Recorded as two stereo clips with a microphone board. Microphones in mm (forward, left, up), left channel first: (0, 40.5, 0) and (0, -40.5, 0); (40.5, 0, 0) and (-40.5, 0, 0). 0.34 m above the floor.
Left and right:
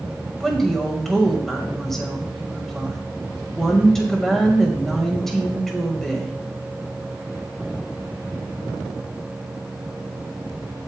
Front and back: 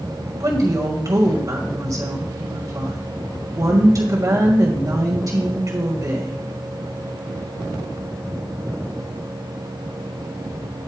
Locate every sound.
0.4 s a woman speaking: 175° left, 2 m